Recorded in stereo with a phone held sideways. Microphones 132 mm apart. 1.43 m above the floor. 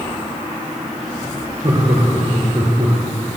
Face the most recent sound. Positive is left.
turn(degrees=-75)  # may be behind; listen again after turning